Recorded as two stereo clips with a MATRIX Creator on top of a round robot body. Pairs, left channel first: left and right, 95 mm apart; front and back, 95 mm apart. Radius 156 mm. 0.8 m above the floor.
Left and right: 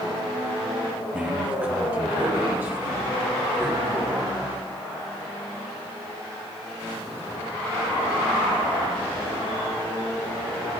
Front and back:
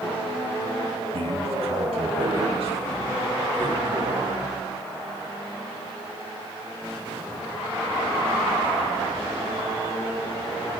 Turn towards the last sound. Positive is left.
turn(degrees=-150)